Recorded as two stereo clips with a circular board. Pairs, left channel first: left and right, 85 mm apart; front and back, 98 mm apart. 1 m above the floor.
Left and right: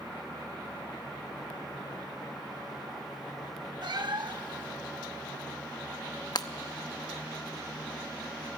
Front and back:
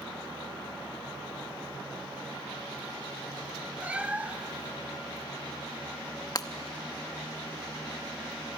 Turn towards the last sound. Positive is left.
turn(degrees=50)